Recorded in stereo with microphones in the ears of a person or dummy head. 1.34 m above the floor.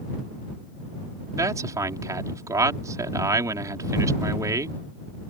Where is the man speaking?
20° right (ahead or behind).